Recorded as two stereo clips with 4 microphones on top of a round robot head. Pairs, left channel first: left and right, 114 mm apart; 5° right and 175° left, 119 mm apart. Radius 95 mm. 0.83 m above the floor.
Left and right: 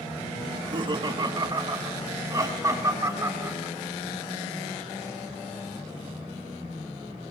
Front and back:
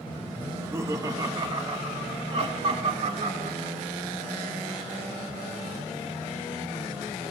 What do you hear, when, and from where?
0.5 s laughter: 115° right, 1.2 m; by 3.8 s 155° right, 2.5 m